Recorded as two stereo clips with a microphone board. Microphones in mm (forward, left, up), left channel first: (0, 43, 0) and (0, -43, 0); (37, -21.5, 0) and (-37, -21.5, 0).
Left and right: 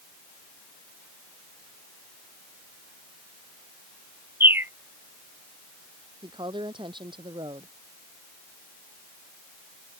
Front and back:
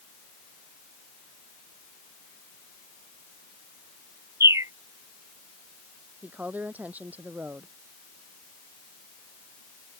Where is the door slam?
No door slam in this recording.